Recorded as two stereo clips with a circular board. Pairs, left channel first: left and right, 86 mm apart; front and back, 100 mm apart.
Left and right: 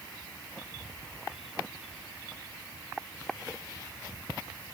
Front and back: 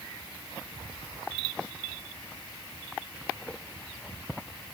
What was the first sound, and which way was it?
Only background noise.